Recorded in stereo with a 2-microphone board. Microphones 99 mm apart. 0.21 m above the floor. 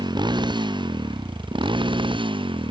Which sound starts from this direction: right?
A motorcycle, at 0.0 s.